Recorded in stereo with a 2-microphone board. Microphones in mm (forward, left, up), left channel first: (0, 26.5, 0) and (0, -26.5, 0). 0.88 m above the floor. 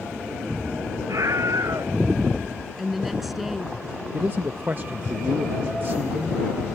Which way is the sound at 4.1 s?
40° right (ahead or behind).